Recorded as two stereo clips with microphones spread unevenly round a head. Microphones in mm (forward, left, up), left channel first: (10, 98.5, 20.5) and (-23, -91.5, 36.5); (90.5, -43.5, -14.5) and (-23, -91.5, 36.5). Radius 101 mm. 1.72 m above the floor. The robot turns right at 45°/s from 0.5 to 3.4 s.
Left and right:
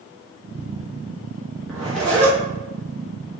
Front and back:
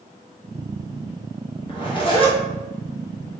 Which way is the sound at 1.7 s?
25° right.